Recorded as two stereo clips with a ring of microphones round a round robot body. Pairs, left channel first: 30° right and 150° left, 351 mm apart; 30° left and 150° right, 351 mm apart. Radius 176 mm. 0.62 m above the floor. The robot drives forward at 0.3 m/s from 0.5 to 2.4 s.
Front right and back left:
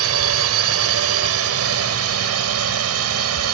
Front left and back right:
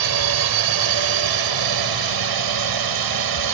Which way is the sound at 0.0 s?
165° right.